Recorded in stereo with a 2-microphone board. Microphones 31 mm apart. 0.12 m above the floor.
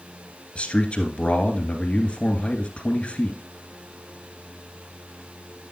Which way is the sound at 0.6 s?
40° left (ahead or behind).